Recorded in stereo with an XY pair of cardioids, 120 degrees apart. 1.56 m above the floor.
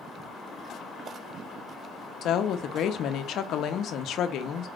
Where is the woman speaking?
60° left, 0.7 m.